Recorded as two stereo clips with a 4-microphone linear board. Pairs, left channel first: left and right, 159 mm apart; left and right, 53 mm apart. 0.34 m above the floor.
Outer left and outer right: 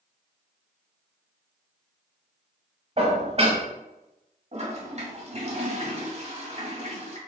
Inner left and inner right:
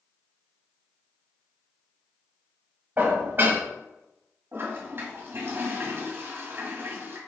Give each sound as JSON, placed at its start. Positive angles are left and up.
{"t": 3.0, "sound": "dishes clattering", "side_deg": -40, "distance_m": 1.1}
{"t": 4.5, "sound": "a toilet flushing", "side_deg": -45, "distance_m": 1.3}